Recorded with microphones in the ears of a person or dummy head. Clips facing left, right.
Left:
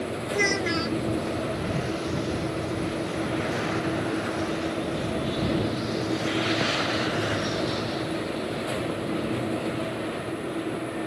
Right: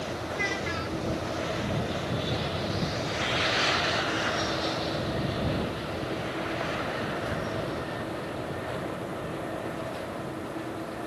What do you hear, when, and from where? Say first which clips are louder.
0.3 s a child speaking: left 10 dB; 55° left (ahead or behind)